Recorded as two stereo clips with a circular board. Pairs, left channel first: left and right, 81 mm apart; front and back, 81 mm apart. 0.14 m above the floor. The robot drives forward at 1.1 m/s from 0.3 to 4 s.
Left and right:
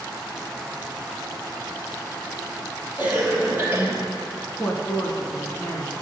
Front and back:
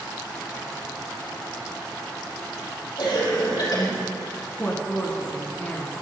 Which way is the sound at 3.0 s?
20° right.